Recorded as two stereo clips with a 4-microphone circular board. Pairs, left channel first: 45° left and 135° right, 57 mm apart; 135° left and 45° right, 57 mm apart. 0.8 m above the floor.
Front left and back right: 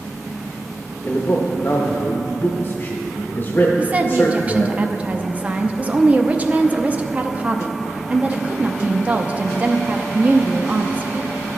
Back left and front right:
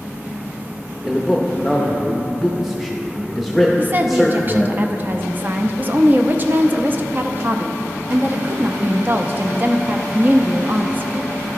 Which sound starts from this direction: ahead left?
A man speaking, at 1.0 s.